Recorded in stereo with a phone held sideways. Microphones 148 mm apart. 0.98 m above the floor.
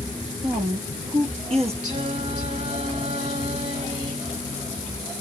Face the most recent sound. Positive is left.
turn(degrees=-50)  # may be behind; listen again after turning